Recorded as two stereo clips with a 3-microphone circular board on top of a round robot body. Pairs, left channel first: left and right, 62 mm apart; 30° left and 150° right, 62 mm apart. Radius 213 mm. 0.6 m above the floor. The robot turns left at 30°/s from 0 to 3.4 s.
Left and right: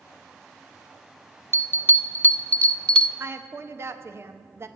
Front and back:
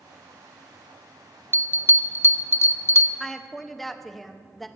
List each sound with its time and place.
1.5 s a bell: 70° left, 0.7 m; by 3.1 s 20° left, 0.7 m
3.2 s a woman speaking: 50° right, 1.1 m; by 4.7 s 55° right, 1.1 m